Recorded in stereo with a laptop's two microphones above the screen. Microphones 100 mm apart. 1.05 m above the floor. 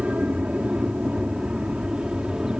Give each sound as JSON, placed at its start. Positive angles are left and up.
{"t": 0.0, "sound": "an aircraft", "side_deg": -10}